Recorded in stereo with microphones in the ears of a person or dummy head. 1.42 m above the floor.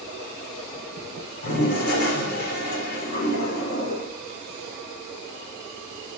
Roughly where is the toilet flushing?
Left.